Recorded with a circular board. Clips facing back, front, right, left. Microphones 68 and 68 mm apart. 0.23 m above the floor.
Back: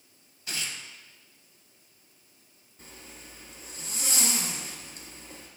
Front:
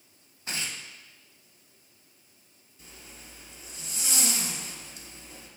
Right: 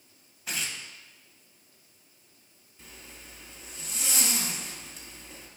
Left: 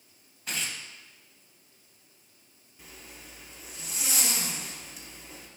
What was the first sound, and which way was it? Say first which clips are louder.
Tearing paper: front 1 dB, even; 5° right.